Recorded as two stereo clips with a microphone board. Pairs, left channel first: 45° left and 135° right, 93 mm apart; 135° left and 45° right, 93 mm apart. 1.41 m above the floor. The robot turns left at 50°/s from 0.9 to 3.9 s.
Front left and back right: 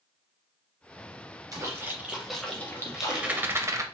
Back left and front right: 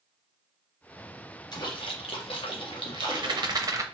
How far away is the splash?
About 0.9 m.